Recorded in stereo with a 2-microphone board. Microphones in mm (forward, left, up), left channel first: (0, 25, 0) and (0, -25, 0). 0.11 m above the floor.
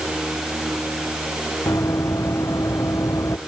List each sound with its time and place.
1.7 s running footsteps: 90° left